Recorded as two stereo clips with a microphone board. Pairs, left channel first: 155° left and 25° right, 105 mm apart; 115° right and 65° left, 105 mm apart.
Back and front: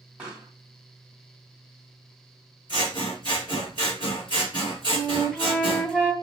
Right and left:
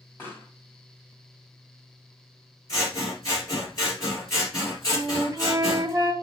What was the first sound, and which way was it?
A pop, 85° right.